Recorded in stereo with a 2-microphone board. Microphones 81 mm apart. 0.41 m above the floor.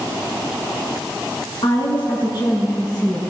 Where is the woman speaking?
65° left (ahead or behind), 4.5 m; by 3.2 s 40° left (ahead or behind), 3 m.